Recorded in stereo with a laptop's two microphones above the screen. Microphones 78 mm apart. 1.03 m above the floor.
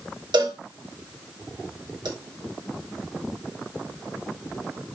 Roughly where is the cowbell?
Right.